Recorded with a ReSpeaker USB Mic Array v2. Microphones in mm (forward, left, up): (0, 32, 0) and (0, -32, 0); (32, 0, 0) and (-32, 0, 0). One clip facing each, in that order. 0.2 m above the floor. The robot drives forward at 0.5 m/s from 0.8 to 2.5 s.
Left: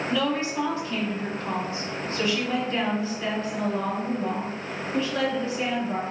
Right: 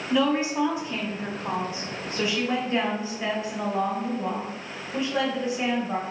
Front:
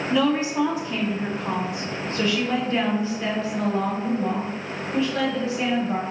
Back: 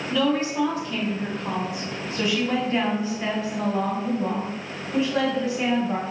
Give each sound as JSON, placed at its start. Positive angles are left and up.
{"t": 0.1, "sound": "a woman speaking", "azimuth_deg": -45, "distance_m": 1.2}